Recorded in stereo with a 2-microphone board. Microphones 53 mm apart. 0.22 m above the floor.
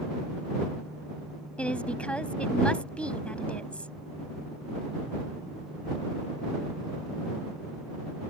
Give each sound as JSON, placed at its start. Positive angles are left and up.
{"t": 1.6, "sound": "a woman speaking", "side_deg": 25}